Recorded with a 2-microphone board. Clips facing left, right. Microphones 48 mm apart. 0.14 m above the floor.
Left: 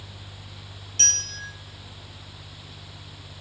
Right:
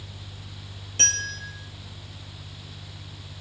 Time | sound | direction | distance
1.0 | a bell | 30° right (ahead or behind) | 4.5 m